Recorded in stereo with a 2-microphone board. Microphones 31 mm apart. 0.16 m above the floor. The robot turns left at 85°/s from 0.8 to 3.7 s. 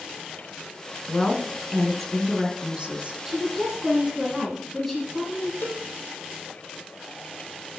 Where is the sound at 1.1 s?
85° left, 1.4 m; by 3.1 s 90° right, 1.4 m.